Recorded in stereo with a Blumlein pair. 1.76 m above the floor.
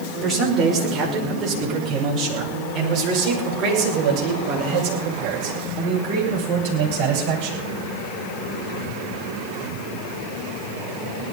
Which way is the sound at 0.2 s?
15° right.